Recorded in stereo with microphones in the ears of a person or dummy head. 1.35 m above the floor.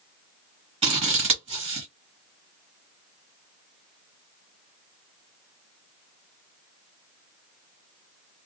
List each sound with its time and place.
0.8 s scissors: 40° right (ahead or behind), 1.1 m